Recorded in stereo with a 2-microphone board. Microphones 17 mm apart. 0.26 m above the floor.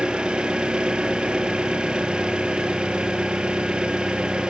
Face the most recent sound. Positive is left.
turn(degrees=-80)